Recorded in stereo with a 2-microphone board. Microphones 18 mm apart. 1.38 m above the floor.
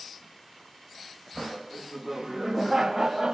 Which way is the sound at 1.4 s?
10° left (ahead or behind).